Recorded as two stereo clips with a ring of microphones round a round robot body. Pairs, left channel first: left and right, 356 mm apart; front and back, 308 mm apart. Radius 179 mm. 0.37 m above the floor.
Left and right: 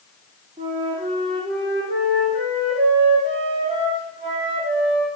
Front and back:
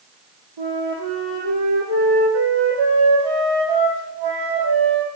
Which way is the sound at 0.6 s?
165° right.